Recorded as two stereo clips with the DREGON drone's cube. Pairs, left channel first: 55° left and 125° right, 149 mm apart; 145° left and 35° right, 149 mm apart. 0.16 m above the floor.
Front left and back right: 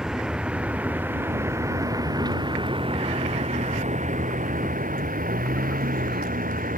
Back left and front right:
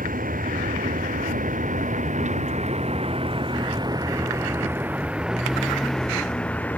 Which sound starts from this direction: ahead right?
A vehicle, at 0.0 s.